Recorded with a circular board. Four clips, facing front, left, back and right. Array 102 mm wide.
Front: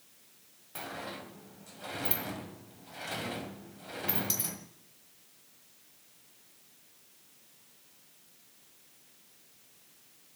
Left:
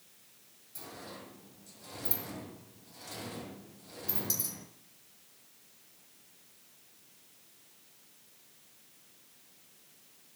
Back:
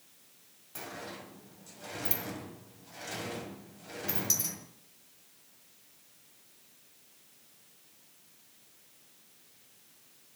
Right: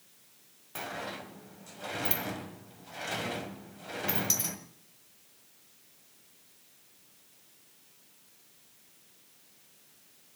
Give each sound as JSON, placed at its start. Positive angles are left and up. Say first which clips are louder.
{"t": 0.8, "sound": "a sliding door", "louder": "right 8 dB, front 2 dB", "azimuth_deg": -70, "distance_m": 1.8}